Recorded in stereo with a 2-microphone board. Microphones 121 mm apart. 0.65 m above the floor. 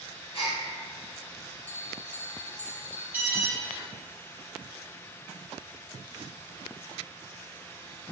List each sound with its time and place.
0.3 s a gasp: 55° left (ahead or behind), 1.8 m
1.7 s a bell: 15° left (ahead or behind), 0.5 m
3.1 s an alarm: 15° right (ahead or behind), 1.1 m